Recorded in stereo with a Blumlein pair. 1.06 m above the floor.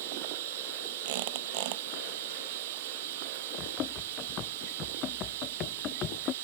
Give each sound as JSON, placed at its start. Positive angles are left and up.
{"t": 0.0, "sound": "running water", "azimuth_deg": -55}
{"t": 1.1, "sound": "a squeak", "azimuth_deg": -50}
{"t": 3.6, "sound": "running footsteps", "azimuth_deg": 30}